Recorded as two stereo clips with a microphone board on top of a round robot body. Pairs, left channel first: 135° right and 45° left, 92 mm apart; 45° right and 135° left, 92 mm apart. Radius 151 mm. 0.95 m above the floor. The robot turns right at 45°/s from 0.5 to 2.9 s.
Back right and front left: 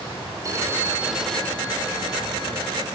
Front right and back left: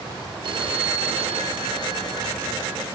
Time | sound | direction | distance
0.4 | a phone ringing | 100° left | 1.7 m